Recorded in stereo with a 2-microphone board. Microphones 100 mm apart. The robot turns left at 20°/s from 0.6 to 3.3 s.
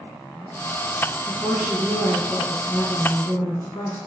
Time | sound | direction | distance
1.3 | a woman speaking | 10° left (ahead or behind) | 1.1 m